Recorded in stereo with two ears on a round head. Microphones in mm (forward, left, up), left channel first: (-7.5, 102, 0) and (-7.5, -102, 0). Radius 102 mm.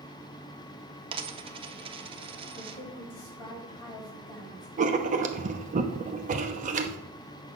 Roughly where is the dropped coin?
Right.